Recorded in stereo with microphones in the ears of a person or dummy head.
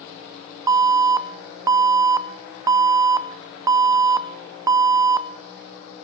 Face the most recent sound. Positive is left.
turn(degrees=-15)  # may be behind; listen again after turning